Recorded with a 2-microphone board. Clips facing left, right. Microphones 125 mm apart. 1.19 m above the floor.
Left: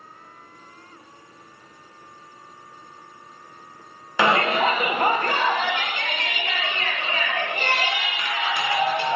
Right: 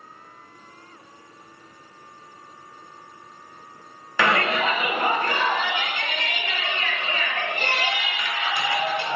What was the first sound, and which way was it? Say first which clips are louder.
A shout: left 2 dB; 20° left (ahead or behind).